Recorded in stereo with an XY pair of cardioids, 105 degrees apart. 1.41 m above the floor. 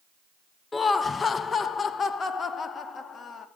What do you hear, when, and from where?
0.7 s laughter: 25° left, 0.6 m; by 3.5 s 45° left, 2.5 m